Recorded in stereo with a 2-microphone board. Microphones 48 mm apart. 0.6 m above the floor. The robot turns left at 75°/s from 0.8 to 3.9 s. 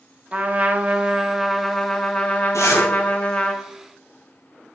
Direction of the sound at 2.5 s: 85° left.